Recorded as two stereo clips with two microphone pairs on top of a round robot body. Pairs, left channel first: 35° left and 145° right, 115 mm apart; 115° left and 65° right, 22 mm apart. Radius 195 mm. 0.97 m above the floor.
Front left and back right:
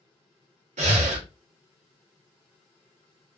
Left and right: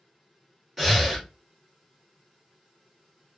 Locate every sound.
0.8 s breathing: 150° right, 1.0 m